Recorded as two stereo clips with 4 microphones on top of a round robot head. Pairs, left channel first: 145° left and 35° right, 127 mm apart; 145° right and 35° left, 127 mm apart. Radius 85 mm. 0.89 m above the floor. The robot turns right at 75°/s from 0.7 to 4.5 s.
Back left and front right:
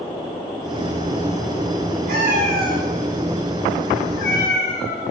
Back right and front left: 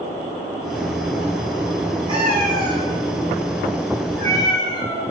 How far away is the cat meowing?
About 5 m.